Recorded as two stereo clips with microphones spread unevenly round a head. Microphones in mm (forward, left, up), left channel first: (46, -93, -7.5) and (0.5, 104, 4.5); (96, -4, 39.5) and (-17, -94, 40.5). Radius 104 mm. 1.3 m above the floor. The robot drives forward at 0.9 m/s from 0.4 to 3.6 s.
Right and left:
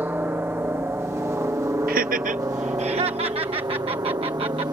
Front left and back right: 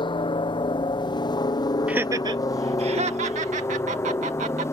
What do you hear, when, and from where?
0.0 s a helicopter: 30° left; by 4.7 s 60° left
1.9 s laughter: 140° left; by 4.7 s 170° left